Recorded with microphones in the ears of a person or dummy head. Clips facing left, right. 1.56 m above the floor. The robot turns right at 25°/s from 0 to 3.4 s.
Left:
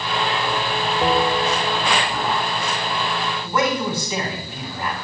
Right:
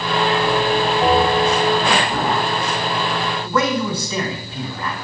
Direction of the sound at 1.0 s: 60° left (ahead or behind).